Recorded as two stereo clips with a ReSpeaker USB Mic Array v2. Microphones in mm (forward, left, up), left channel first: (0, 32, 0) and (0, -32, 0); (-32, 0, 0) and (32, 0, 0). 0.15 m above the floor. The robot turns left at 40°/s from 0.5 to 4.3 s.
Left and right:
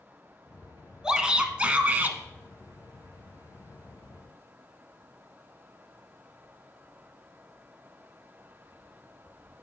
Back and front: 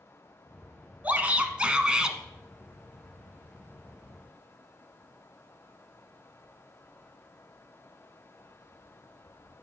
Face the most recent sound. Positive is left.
turn(degrees=-155)